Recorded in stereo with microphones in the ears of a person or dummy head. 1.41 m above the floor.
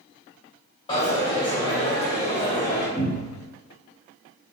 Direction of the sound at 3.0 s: 15° left (ahead or behind).